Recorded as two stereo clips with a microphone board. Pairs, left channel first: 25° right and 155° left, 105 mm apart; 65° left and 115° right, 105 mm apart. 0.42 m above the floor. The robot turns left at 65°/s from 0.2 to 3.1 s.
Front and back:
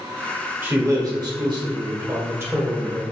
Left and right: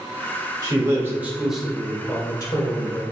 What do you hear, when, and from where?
0.6 s a man speaking: 140° right, 1.2 m; by 3.0 s 65° left, 1.2 m